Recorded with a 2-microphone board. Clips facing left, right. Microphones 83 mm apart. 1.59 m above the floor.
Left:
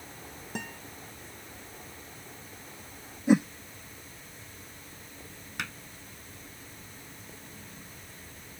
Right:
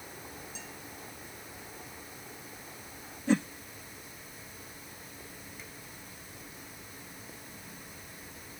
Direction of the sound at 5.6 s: 85° left.